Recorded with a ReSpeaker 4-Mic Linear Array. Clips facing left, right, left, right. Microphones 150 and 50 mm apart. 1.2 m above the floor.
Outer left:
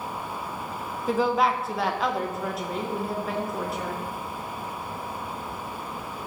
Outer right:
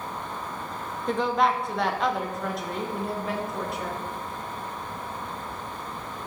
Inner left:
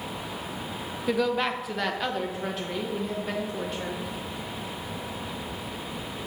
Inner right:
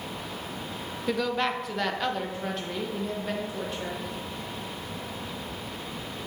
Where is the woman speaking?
5° left (ahead or behind), 0.5 m; by 4.0 s centre (ahead or behind), 1.9 m.